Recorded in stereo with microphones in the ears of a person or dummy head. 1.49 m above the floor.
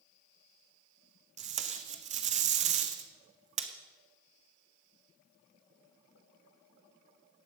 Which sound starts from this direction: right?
Tape being pulled, at 1.4 s.